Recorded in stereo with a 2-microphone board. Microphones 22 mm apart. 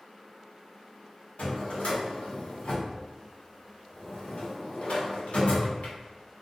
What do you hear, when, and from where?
1.4 s a drawer: 80° left, 0.9 m